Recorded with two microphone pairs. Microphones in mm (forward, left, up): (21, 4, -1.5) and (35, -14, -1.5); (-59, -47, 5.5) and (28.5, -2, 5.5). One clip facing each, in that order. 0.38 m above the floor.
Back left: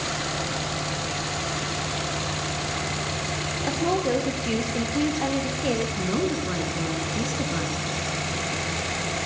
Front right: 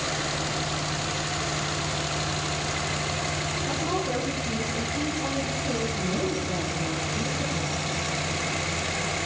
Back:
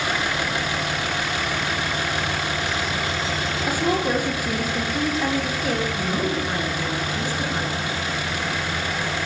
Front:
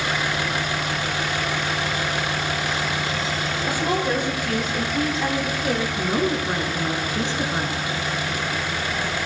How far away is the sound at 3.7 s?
About 7 m.